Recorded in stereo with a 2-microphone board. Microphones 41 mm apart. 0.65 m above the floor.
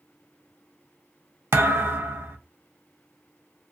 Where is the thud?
75° right (ahead or behind), 0.5 m.